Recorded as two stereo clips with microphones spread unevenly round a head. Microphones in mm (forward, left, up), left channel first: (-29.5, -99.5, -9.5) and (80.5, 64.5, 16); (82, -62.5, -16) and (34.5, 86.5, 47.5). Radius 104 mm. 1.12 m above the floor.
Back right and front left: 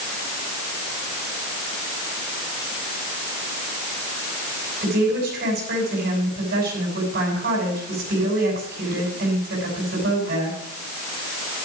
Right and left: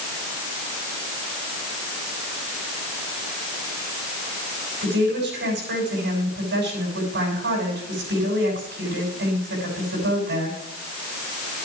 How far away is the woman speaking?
About 7 m.